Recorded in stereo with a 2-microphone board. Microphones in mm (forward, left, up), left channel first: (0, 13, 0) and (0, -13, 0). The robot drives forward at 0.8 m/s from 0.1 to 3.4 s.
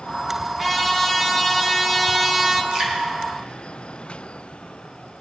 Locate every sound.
0.6 s a trumpet: 10° right (ahead or behind), 3 m; by 2.6 s 20° right (ahead or behind), 1.3 m
2.7 s dripping: 25° right (ahead or behind), 4.5 m